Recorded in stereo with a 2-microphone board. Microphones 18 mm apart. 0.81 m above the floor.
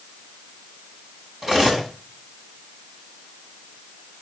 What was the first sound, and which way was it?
Cutlery clinking, 30° right (ahead or behind).